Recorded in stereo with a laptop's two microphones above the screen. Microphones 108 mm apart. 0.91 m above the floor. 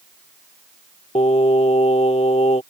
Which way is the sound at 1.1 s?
80° left.